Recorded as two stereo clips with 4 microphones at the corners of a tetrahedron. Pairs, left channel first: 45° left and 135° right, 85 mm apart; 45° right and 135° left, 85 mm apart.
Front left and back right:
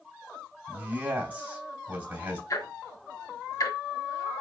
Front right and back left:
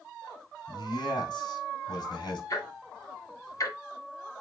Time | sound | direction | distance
0.7 | a man speaking | 70° right | 3 m
2.5 | ticking | straight ahead | 2 m